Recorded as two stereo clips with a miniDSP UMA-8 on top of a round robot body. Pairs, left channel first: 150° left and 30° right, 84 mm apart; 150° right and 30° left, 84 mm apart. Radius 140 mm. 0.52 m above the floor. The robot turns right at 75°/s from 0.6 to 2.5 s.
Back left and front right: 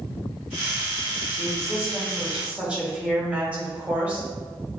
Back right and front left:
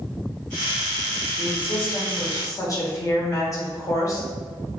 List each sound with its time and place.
1.4 s a woman speaking: 175° left, 1.7 m; by 4.3 s 100° right, 1.7 m